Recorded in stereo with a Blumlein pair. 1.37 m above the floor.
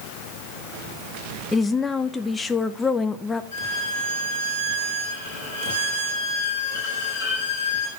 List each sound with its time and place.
1.5 s a woman speaking: 10° left, 0.7 m
3.5 s a violin: 60° left, 7.5 m